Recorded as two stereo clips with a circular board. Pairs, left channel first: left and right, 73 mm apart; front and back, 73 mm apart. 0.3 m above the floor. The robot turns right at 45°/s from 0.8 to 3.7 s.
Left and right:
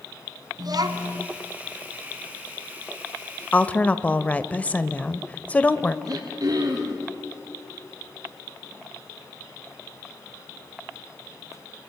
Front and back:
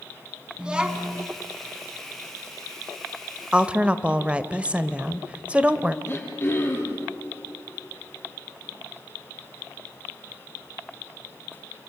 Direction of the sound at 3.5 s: 125° left.